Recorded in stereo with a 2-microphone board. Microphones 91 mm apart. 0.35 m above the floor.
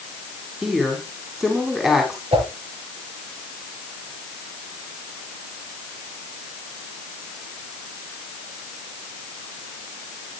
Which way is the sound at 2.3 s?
80° right.